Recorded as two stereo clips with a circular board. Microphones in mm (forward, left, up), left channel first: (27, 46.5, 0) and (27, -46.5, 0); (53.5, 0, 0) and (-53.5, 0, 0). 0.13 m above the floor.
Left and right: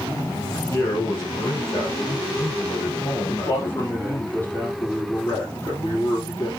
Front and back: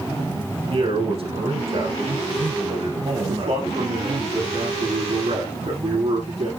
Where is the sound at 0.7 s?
150° left, 4.5 m.